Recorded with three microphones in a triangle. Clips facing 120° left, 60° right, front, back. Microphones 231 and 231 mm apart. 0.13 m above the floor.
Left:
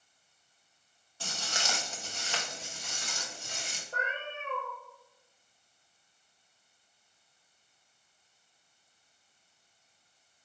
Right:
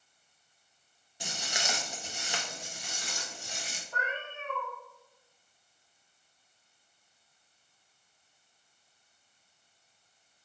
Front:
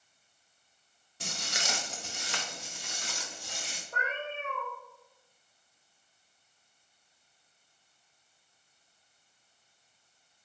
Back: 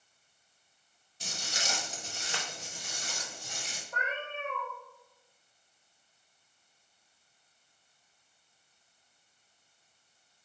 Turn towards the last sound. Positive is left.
turn(degrees=50)